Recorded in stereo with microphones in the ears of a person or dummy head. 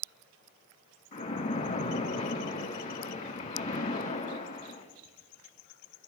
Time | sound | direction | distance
1.1 | a splash | 45° left (ahead or behind) | 2.5 m